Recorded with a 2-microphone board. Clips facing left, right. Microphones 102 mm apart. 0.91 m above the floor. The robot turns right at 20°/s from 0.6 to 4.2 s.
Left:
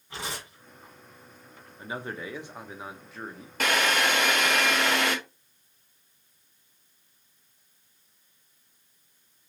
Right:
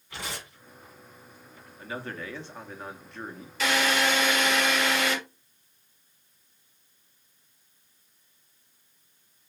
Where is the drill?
55° left (ahead or behind), 0.9 m; by 5.2 s 60° left (ahead or behind), 0.9 m.